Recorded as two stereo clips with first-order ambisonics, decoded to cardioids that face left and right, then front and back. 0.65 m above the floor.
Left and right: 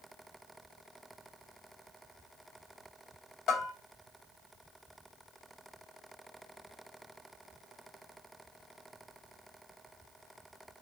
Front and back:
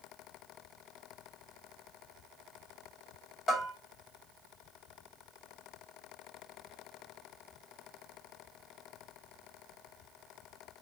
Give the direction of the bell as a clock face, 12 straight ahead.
10 o'clock.